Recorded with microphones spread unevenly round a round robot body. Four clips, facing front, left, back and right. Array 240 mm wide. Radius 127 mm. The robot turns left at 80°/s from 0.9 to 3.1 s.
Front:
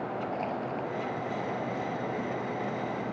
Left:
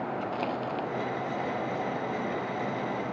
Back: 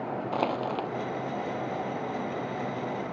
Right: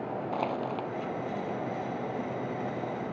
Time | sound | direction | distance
0.3 | crushing | straight behind | ?